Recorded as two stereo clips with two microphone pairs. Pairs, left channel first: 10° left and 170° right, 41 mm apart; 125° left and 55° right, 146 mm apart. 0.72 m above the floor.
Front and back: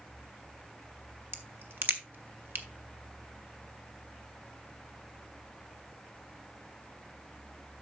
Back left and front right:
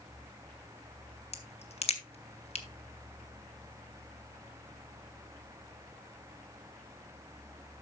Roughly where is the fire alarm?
I don't hear a fire alarm.